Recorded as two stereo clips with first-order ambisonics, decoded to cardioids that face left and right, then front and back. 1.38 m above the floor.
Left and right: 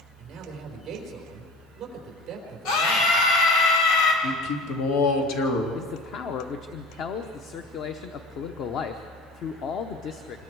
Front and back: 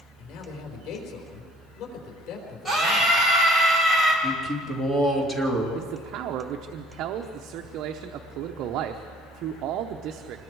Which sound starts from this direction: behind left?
A man speaking, at 5.8 s.